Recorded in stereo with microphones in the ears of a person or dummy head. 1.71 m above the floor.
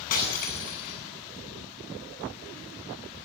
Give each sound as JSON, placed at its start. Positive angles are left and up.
{"t": 0.1, "sound": "breaking glass", "side_deg": 45, "distance_m": 8.5}